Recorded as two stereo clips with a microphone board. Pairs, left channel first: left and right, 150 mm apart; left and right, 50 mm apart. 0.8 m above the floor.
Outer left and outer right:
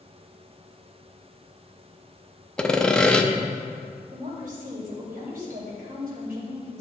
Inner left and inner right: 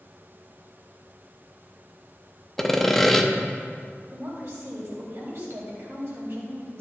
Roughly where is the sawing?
Centre.